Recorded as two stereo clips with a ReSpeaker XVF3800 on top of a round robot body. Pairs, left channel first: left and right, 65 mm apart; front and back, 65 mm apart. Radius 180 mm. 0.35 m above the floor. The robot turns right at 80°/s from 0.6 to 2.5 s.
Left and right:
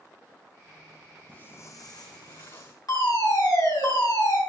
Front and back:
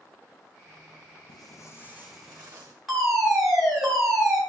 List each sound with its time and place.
1.3 s footsteps: 20° left, 0.9 m; by 2.7 s 115° left, 3 m
2.9 s a fire alarm: 95° left, 6 m